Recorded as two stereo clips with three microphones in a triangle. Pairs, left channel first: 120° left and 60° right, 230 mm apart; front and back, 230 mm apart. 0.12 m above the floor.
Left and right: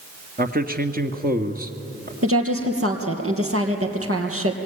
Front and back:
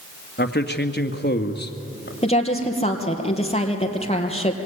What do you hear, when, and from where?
0.4 s a man speaking: 20° right, 1.8 m
2.2 s a woman speaking: 65° right, 3 m